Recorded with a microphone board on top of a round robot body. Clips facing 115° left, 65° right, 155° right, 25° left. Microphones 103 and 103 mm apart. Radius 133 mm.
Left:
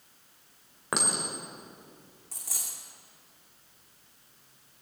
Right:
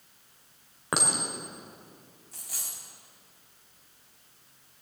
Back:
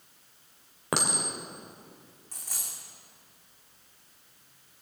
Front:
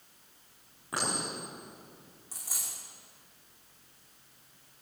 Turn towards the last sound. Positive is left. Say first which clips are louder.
# left 1 dB, even
turn(degrees=105)